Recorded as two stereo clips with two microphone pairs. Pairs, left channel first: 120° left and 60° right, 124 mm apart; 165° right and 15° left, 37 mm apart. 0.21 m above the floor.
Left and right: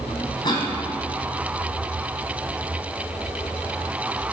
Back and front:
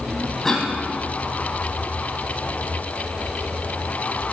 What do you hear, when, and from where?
0.4 s a cough: 125° left, 2.0 m